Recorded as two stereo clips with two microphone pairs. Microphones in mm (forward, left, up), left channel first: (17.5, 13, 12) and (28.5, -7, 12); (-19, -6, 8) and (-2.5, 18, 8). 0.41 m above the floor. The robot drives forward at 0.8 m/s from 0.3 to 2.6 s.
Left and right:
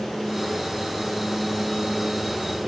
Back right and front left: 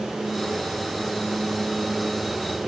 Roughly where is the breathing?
I don't hear breathing.